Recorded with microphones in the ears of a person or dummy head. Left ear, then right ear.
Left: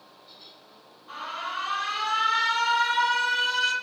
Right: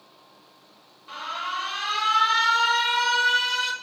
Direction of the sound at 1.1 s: 20° right (ahead or behind).